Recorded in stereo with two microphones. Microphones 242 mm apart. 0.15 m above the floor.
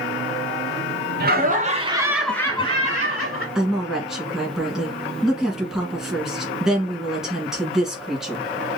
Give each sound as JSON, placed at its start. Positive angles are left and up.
{"t": 1.2, "sound": "laughter", "side_deg": -40, "distance_m": 1.6}
{"t": 3.5, "sound": "a woman speaking", "side_deg": 0, "distance_m": 1.6}